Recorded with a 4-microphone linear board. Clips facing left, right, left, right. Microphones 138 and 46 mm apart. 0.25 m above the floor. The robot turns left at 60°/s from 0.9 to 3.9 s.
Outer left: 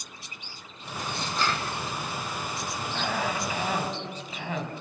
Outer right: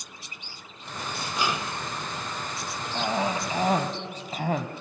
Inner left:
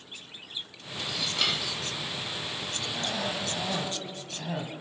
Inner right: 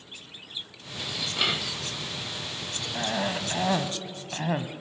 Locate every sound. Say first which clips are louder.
1.0 s dishes clattering: even, inner right 1 dB; 5° right (ahead or behind), 0.6 m; by 1.8 s 20° right (ahead or behind), 0.6 m
3.0 s a cough: outer right 3 dB, inner right 5 dB; 25° right, 1.6 m; by 4.7 s 85° right, 1.6 m